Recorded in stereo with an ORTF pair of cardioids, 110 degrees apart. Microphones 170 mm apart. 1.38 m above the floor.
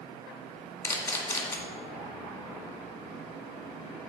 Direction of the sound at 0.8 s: 15° left.